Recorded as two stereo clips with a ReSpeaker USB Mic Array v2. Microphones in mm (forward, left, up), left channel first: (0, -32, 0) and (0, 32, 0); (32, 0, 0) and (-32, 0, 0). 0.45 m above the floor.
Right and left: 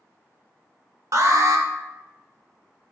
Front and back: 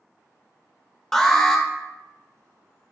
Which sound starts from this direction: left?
An alarm, at 1.1 s.